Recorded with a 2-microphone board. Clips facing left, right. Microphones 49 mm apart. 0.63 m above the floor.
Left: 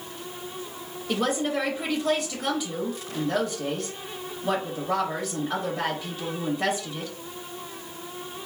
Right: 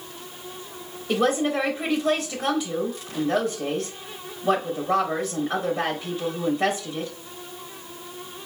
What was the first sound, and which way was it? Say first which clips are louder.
A woman speaking: right 4 dB; 5° right (ahead or behind).